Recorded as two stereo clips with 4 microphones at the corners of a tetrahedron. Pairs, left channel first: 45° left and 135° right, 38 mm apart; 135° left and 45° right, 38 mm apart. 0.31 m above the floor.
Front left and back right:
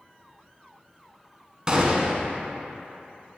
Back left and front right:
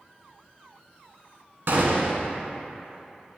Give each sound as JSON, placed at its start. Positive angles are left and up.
{"t": 1.7, "sound": "a gunshot", "azimuth_deg": -65, "distance_m": 0.5}